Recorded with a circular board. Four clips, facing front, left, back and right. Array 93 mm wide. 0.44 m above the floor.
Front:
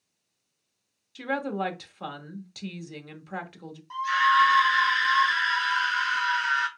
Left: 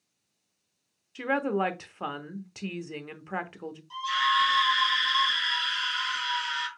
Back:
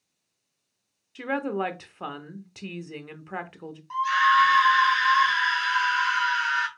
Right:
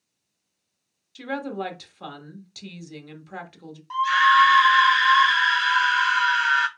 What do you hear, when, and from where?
1.1 s a woman speaking: 120° left, 0.8 m
3.9 s a scream: 105° right, 1.6 m